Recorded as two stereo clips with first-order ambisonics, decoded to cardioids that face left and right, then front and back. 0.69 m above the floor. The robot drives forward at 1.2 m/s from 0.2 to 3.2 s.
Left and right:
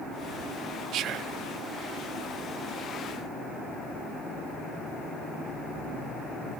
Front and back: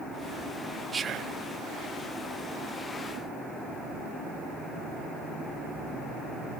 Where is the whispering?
105° right, 0.6 m; by 1.4 s 150° right, 0.9 m.